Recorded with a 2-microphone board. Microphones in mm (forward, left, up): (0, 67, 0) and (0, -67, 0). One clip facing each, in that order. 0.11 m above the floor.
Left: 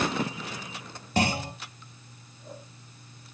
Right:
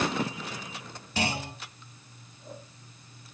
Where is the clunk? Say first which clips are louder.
Left 4 dB; 45° left (ahead or behind), 1.2 m.